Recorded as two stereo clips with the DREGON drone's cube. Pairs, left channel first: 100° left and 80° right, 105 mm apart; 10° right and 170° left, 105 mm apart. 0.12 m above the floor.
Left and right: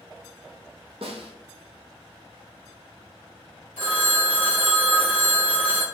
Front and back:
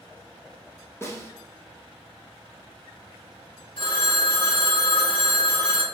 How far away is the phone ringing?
About 1.6 m.